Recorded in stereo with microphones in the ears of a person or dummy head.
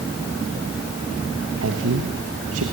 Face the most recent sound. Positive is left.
turn(degrees=-70)  # may be behind; listen again after turning